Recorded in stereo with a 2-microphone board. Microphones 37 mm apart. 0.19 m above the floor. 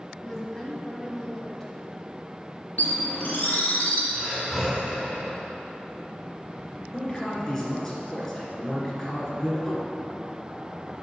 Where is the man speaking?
10° left (ahead or behind), 2 m.